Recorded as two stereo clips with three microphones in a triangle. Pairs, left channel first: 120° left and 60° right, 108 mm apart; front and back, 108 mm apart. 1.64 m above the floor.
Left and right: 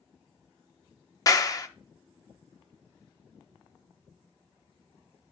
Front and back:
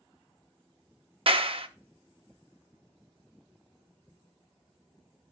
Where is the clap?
170° left, 0.5 m.